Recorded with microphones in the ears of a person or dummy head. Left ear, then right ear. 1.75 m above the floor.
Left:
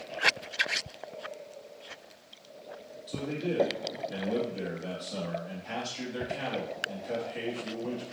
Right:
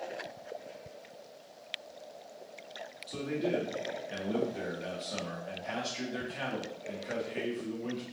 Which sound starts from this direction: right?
A man speaking, at 3.1 s.